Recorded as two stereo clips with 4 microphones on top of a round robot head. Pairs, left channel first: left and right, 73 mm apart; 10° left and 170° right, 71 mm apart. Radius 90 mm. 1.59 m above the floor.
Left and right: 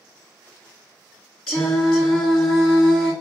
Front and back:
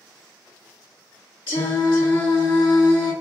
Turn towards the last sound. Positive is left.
turn(degrees=5)